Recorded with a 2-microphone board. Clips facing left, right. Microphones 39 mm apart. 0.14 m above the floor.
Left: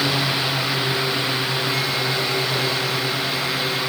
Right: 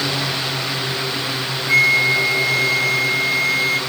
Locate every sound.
1.7 s a flute: 60° right (ahead or behind)